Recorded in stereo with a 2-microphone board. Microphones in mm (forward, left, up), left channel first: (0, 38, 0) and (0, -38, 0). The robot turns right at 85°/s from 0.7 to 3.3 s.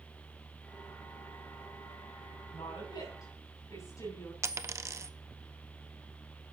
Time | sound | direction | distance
2.5 | a woman speaking | 65° left | 7.5 m
4.4 | a dropped coin | 40° right (ahead or behind) | 0.6 m